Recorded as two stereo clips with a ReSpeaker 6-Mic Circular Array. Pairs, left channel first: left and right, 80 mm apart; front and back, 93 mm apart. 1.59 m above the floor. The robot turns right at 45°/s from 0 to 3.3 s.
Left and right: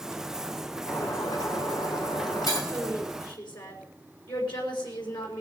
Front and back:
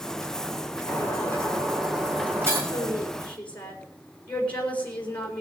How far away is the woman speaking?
About 4 m.